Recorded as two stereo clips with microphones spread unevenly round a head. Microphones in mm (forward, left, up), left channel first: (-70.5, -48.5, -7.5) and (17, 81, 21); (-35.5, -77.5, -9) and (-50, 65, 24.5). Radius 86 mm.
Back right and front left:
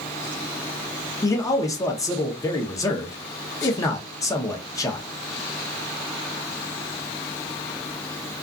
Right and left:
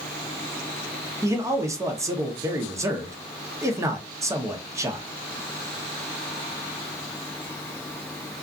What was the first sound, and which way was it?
A man speaking, 170° left.